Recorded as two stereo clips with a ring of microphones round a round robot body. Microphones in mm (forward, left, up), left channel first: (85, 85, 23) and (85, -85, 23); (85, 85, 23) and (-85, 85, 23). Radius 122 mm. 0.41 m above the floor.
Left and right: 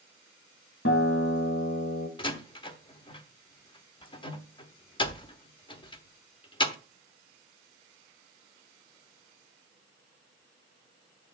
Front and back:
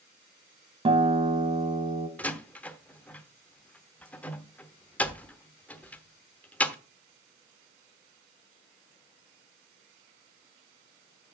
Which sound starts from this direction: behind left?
A guitar, at 0.8 s.